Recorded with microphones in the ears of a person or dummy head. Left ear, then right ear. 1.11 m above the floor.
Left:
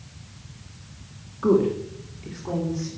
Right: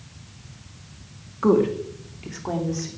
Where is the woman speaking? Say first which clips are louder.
Right 1 dB; 30° right (ahead or behind), 2 m; by 2.9 s 40° right (ahead or behind), 3.5 m.